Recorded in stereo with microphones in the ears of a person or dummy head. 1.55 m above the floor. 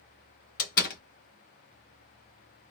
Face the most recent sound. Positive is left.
turn(degrees=50)  # may be behind; listen again after turning